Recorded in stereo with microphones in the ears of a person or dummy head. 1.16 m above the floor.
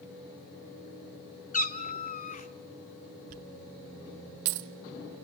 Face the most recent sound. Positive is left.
turn(degrees=-45)  # may be behind; listen again after turning